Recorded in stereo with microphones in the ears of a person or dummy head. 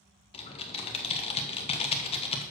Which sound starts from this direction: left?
Typing on a keyboard, at 0.3 s.